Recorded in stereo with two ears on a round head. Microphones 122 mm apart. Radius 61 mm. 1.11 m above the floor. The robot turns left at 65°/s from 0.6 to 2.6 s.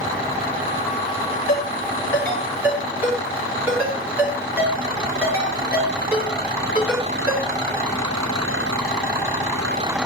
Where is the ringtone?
60° left (ahead or behind), 8.5 m; by 7.5 s 15° right (ahead or behind), 8.5 m.